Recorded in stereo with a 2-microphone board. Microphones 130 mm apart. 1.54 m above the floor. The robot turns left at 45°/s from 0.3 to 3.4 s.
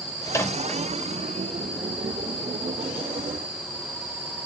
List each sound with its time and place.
0.3 s a microwave: 25° left (ahead or behind), 2 m; by 0.8 s 5° left (ahead or behind), 2 m